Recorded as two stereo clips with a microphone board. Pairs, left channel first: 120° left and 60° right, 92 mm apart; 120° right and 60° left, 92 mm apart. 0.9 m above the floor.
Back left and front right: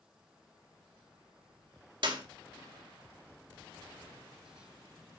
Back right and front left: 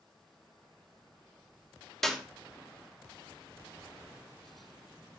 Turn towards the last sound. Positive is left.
turn(degrees=-35)